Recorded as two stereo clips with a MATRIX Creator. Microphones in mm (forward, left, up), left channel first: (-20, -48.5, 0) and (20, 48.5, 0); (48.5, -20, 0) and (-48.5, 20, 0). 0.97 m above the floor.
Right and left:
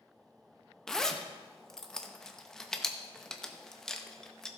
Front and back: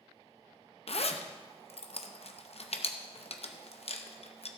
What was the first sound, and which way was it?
A zipper, 30° right.